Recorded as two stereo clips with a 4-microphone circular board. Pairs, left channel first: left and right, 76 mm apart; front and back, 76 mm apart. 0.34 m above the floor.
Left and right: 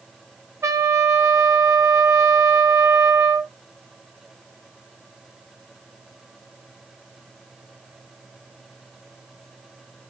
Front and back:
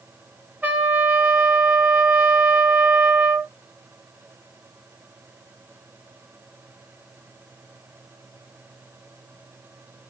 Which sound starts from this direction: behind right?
A trumpet, at 0.6 s.